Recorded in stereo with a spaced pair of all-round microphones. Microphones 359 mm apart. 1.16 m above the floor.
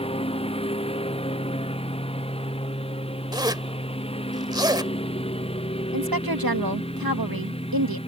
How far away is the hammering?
No hammering in this recording.